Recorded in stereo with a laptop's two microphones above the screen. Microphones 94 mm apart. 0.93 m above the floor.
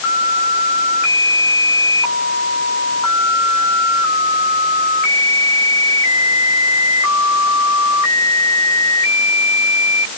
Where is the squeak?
I don't hear a squeak.